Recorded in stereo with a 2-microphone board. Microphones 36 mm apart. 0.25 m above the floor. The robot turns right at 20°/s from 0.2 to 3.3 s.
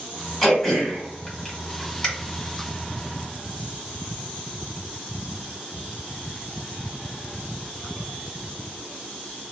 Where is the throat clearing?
5° left (ahead or behind), 1.7 m; by 2.1 s 25° left (ahead or behind), 1.7 m.